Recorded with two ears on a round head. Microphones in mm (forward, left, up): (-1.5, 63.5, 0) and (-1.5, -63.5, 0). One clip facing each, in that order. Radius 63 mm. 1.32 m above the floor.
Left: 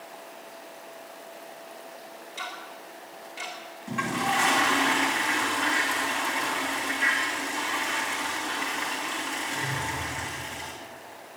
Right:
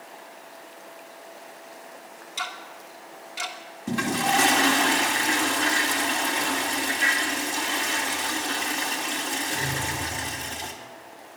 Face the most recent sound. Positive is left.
turn(degrees=-45)  # may be behind; listen again after turning